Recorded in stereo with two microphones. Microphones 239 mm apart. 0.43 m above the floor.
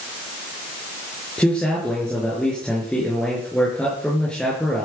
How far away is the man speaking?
About 5.5 m.